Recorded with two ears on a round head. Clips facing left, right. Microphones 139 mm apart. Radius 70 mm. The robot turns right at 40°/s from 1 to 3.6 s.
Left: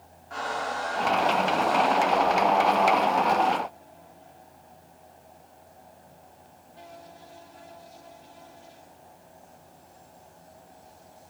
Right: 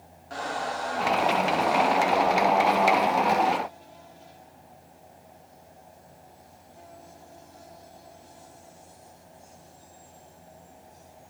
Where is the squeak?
45° right, 2 m; by 2.6 s 20° left, 2 m.